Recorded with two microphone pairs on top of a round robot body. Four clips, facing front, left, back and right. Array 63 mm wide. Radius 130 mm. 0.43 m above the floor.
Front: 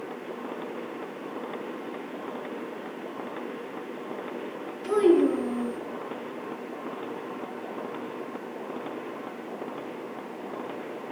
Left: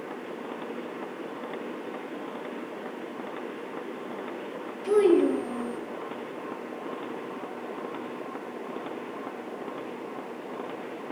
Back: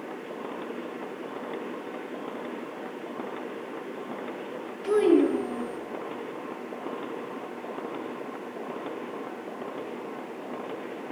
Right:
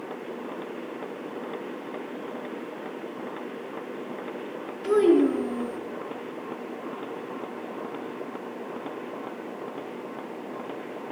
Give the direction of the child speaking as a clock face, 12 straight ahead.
4 o'clock.